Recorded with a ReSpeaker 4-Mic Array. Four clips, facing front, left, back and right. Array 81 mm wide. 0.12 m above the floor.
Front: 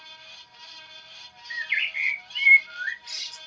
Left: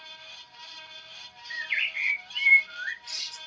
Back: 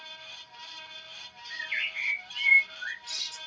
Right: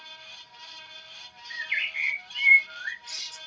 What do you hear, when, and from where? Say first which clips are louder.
1.5 s a bird: even, front 6 dB; 5° right, 2 m